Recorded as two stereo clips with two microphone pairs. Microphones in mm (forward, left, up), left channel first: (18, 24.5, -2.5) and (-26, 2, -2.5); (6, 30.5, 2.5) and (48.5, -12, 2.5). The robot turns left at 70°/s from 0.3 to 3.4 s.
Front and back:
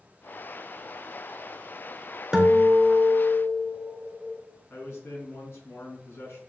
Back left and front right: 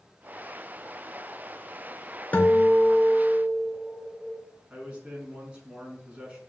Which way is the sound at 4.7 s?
20° left.